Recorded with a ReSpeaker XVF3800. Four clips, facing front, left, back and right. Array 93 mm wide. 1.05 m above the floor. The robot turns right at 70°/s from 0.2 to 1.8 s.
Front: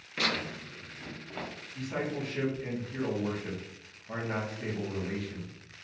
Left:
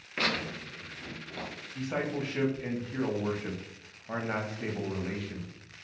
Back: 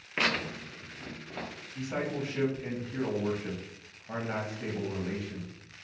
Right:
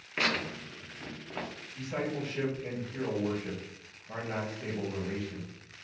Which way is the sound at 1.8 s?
100° left.